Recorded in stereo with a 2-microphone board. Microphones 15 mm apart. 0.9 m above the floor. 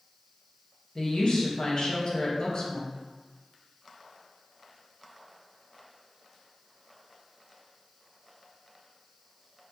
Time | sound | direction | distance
0.9 | a woman speaking | 60° left (ahead or behind) | 0.8 m